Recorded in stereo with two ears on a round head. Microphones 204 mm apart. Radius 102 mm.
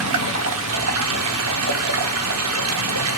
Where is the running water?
70° right (ahead or behind), 0.9 m.